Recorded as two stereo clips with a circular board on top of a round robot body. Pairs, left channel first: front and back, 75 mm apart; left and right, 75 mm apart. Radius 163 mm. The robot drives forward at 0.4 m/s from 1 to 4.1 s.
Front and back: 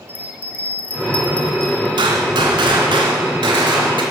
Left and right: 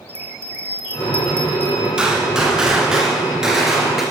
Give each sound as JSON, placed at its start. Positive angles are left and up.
{"t": 0.1, "sound": "a bell", "azimuth_deg": -60, "distance_m": 1.7}
{"t": 2.0, "sound": "a gunshot", "azimuth_deg": -170, "distance_m": 0.8}